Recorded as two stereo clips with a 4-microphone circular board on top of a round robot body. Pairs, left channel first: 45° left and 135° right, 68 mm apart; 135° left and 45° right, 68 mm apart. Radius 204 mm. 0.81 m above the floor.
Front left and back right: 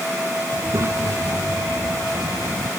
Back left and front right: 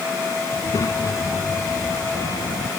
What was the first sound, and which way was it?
A child speaking, 175° left.